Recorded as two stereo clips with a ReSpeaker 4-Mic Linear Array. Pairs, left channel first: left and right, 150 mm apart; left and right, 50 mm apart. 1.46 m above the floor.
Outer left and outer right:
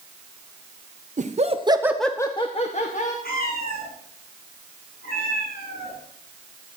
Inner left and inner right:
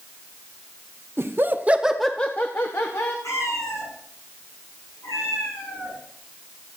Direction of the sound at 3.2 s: 80° left.